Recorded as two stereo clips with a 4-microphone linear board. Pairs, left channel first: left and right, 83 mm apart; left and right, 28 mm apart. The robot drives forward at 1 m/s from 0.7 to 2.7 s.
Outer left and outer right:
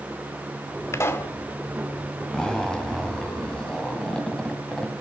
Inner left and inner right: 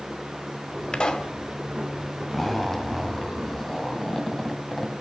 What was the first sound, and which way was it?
A pop, 35° left (ahead or behind).